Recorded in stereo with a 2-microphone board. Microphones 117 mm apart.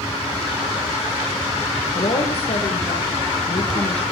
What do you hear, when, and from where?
1.9 s a woman speaking: 60° left (ahead or behind), 6 m